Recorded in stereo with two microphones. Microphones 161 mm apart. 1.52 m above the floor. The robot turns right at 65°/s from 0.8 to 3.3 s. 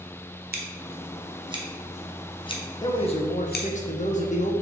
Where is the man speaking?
30° left, 0.6 m; by 4.5 s 60° left, 0.6 m.